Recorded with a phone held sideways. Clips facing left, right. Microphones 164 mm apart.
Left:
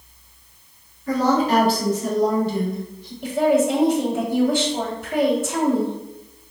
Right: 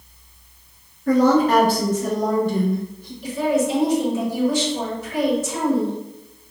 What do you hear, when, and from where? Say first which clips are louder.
1.1 s a woman speaking: right 4 dB; 50° right (ahead or behind), 1.7 m
3.2 s a woman speaking: left 3 dB; 55° left (ahead or behind), 1.4 m